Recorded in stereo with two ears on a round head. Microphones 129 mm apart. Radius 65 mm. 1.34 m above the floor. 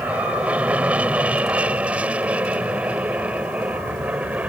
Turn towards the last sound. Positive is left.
turn(degrees=-10)  # may be behind; listen again after turning